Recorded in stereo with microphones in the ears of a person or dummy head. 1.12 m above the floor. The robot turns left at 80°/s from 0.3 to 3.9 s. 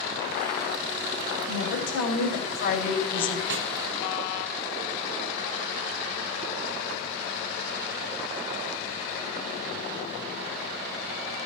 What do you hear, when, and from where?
1.5 s a woman speaking: 145° left, 5.5 m; by 3.4 s 5° right, 5.5 m
3.5 s a snare drum: 60° right (ahead or behind), 1.2 m